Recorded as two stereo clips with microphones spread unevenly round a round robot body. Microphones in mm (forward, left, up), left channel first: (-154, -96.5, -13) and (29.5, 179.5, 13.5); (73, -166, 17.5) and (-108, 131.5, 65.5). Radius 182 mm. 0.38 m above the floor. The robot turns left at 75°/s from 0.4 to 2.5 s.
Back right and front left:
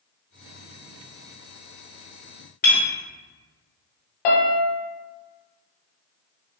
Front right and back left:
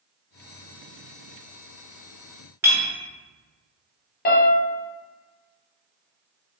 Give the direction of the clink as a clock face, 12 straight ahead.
5 o'clock.